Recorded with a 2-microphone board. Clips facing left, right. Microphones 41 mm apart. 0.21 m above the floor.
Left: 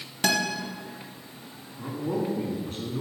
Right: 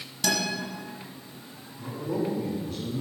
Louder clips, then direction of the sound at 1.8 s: Left 1 dB; 50° left (ahead or behind).